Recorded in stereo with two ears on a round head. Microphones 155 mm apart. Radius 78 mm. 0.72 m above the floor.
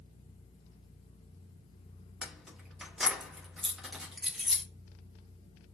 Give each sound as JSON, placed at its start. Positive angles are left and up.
{"t": 2.2, "sound": "keys jangling", "side_deg": -5, "distance_m": 0.6}